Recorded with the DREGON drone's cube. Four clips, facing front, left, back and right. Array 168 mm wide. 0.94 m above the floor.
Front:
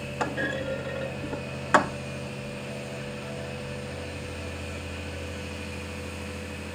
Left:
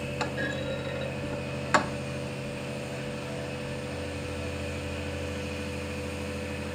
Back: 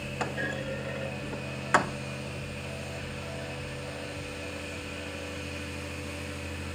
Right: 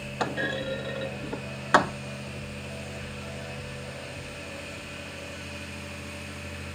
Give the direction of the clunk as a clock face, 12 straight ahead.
2 o'clock.